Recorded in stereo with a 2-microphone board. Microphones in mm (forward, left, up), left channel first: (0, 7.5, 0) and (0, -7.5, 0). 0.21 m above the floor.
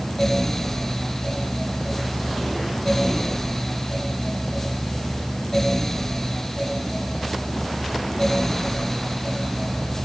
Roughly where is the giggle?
I don't hear a giggle.